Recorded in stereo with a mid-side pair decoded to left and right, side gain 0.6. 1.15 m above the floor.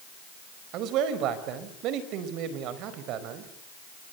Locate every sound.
0.7 s a man speaking: 65° right, 4.5 m